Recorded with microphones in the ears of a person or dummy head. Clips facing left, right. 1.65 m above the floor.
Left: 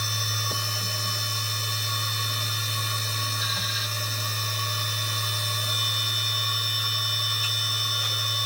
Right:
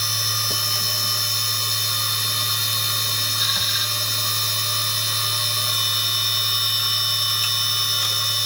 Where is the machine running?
75° right (ahead or behind), 0.8 m.